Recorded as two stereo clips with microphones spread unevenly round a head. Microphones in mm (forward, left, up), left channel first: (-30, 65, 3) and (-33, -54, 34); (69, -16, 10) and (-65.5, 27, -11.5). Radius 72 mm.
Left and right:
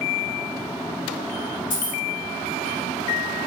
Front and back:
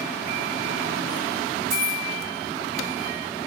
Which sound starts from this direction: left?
Keys jangling, at 1.7 s.